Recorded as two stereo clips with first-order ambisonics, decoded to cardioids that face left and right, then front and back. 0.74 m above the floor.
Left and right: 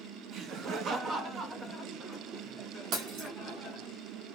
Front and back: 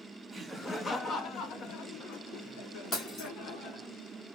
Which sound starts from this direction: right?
Laughter, at 0.3 s.